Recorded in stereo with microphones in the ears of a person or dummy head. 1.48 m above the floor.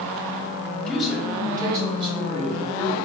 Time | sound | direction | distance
0.9 | a man speaking | 5° left (ahead or behind) | 1.0 m